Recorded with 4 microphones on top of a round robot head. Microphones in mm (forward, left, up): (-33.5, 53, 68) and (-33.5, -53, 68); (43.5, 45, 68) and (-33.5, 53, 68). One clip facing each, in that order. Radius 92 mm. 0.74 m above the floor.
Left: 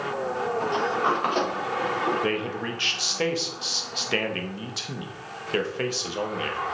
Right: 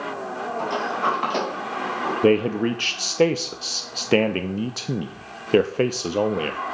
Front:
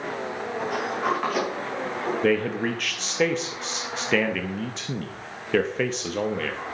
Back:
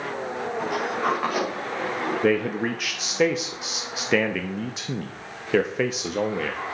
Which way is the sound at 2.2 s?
105° right.